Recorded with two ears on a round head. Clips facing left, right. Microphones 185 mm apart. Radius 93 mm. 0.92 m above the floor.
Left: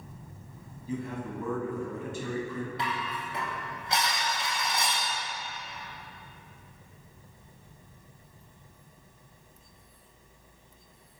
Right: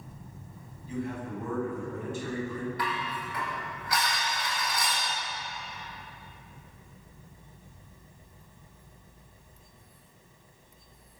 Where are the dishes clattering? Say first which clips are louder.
Even; 25° left (ahead or behind), 4.5 m.